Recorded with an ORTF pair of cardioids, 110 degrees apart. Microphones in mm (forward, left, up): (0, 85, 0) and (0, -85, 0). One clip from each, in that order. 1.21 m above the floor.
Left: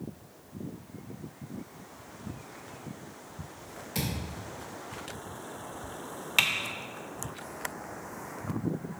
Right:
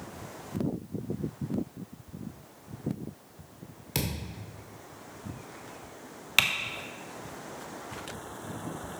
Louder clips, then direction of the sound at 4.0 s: Right 1 dB; 50° right.